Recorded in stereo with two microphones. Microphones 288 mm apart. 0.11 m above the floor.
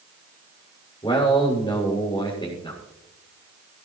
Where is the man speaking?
15° left (ahead or behind), 6.5 m.